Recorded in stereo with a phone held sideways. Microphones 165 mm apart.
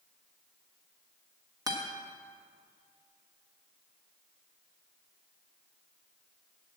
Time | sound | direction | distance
1.7 | a guitar | 20° right (ahead or behind) | 1.4 m